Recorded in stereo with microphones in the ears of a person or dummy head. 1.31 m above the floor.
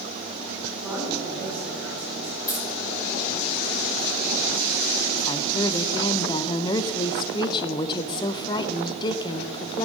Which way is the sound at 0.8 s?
5° right (ahead or behind).